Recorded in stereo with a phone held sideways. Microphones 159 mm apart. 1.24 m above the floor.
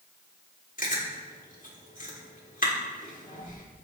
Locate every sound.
0.8 s chewing: 60° left (ahead or behind), 4.5 m